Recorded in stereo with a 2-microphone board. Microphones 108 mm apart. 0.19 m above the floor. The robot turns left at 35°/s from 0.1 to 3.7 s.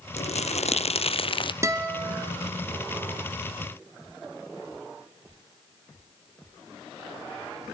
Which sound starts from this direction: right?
A guitar, at 1.6 s.